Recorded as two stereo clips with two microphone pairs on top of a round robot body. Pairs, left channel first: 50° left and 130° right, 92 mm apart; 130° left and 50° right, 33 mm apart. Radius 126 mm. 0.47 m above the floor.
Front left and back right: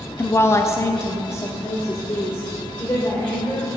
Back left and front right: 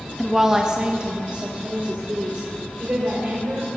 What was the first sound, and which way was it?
A woman speaking, 40° left.